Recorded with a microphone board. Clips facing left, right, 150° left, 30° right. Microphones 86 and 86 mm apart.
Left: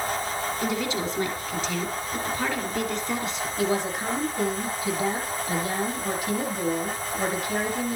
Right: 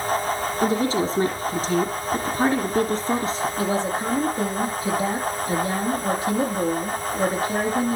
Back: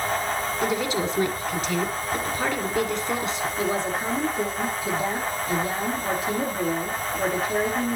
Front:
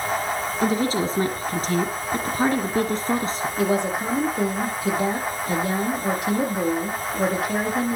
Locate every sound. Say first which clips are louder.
0.6 s a woman speaking: right 8 dB, front 4 dB; 60° right, 1.7 m
3.6 s a woman speaking: left 1 dB, front 5 dB; 35° right, 7.5 m